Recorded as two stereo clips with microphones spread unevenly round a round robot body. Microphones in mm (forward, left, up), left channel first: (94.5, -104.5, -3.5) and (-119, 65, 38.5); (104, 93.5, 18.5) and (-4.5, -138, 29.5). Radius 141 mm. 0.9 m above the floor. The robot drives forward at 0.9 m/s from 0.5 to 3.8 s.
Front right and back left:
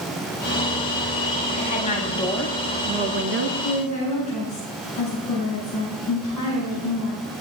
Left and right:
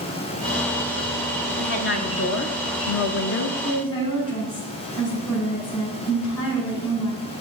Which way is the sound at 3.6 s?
35° left.